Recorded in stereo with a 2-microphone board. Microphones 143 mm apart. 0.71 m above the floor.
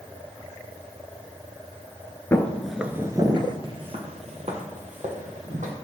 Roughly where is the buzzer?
No buzzer in this recording.